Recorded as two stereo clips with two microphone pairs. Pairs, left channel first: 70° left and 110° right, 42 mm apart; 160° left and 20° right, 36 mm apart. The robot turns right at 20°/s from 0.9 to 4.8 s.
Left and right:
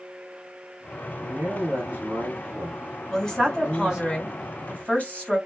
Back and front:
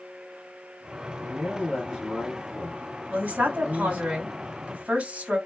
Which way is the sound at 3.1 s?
5° right.